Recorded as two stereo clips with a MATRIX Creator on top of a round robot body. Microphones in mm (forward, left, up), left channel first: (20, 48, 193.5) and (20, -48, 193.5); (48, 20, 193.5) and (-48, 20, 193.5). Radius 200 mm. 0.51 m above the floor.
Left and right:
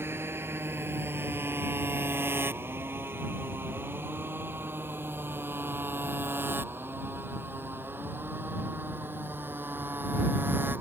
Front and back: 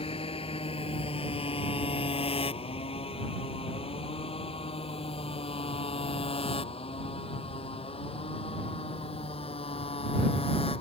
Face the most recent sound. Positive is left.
turn(degrees=-20)